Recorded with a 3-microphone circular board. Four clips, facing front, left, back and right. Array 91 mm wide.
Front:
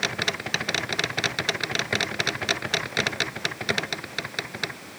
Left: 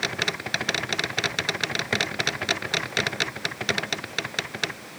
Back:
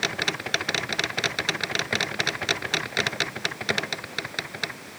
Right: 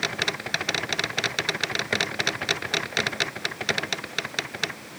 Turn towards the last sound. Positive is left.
No sound to turn to.